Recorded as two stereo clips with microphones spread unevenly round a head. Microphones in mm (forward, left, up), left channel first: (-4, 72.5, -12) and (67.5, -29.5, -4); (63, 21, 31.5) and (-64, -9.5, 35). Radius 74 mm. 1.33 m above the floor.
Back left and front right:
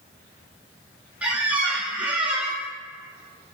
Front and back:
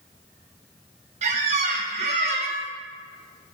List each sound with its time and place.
1.2 s a squeak: 130° right, 0.6 m